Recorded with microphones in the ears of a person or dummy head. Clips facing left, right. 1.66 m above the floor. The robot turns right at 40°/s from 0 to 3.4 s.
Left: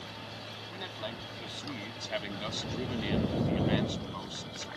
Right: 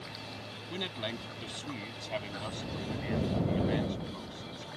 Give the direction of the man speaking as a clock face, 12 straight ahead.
1 o'clock.